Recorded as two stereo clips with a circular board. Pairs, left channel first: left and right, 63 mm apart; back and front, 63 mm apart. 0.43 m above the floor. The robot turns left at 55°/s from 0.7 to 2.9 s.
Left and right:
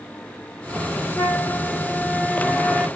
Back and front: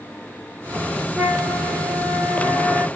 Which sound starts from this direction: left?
A flute, at 1.1 s.